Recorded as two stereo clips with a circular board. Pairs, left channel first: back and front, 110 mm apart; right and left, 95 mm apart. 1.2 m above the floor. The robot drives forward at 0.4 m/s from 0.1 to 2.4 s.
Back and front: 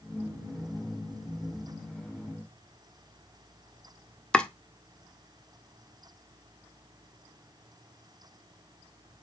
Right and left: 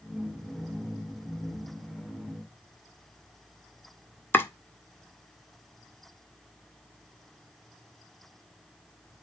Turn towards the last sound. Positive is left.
turn(degrees=-110)